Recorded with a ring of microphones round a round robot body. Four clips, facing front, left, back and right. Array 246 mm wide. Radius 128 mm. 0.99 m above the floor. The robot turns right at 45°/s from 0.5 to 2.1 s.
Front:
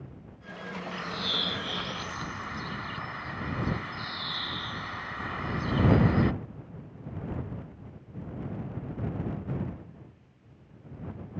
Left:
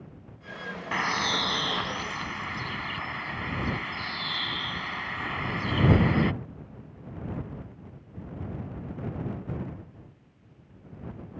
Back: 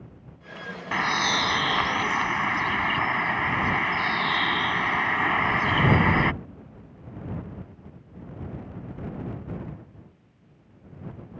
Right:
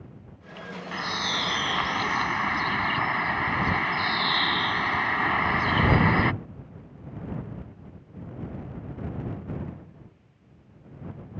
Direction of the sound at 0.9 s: 160° left.